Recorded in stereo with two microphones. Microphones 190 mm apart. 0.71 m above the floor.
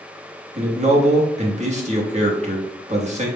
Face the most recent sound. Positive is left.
turn(degrees=-35)  # may be behind; listen again after turning